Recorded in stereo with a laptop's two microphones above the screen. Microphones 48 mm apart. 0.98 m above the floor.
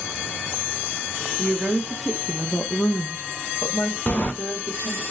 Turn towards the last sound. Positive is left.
turn(degrees=35)  # may be behind; listen again after turning